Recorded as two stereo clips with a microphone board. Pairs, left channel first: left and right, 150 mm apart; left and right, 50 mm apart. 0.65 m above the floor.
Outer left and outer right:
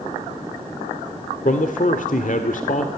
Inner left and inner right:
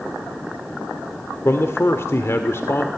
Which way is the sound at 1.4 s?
60° left (ahead or behind).